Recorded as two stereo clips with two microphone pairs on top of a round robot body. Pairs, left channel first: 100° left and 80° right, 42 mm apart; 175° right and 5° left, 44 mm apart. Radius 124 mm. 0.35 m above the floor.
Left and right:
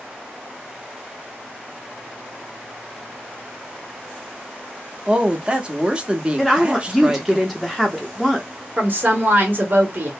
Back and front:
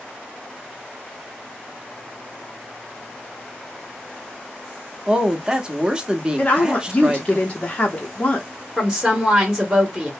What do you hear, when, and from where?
5.1 s a woman speaking: 50° right, 0.9 m
6.4 s a woman speaking: 165° right, 0.9 m
8.8 s a woman speaking: 80° right, 1.3 m